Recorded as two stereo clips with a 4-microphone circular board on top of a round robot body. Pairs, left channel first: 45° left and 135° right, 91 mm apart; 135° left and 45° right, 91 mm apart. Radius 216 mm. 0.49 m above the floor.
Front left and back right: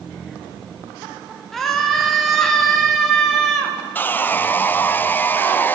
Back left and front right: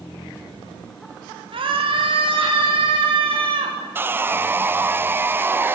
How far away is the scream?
About 3 m.